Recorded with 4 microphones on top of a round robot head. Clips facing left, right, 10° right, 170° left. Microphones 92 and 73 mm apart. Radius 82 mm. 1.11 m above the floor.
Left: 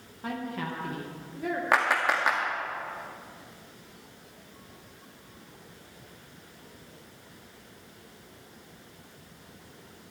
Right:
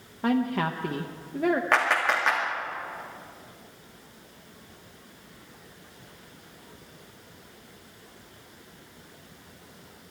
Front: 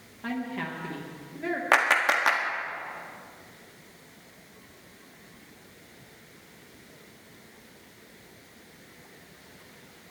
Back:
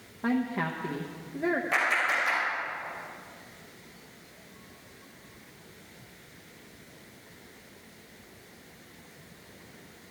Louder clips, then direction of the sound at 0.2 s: Right 9 dB, back 4 dB; 125° right.